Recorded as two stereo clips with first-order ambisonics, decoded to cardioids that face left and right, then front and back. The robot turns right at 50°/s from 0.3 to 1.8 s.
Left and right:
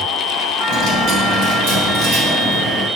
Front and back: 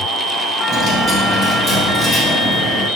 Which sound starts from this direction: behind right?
A dropped coin, at 0.7 s.